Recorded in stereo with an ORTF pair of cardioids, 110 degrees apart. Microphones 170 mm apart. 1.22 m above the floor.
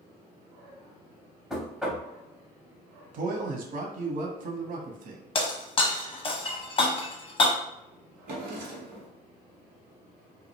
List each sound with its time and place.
1.5 s knocking: straight ahead, 0.6 m
3.1 s a man speaking: 55° right, 0.7 m
5.3 s breaking glass: 35° left, 0.8 m
8.3 s a drawer: 65° right, 1.0 m